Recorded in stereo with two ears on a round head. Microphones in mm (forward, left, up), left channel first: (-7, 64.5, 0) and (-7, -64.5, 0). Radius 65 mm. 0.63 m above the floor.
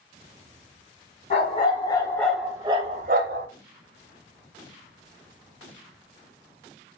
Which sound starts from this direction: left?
A dog barking, at 1.3 s.